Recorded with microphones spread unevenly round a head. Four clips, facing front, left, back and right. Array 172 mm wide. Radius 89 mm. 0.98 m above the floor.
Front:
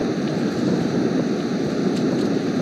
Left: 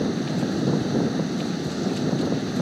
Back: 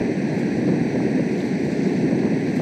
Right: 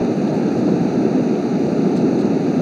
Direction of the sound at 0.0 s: 90° right.